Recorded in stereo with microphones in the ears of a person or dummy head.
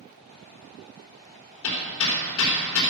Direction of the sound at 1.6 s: 65° left (ahead or behind).